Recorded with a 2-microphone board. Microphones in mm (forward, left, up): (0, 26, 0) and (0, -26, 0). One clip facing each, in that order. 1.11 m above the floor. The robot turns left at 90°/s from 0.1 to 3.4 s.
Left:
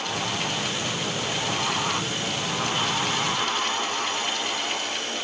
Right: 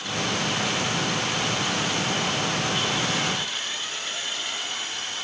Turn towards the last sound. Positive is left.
No sound to turn to.